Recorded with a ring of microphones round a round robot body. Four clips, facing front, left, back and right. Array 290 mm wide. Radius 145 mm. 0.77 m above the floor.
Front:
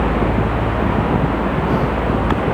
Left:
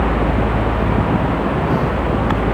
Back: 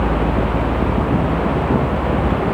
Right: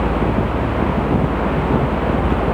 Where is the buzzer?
I don't hear a buzzer.